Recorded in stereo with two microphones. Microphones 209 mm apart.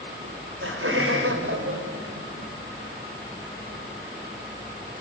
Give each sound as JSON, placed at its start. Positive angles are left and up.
{"t": 0.2, "sound": "laughter", "side_deg": -75, "distance_m": 3.0}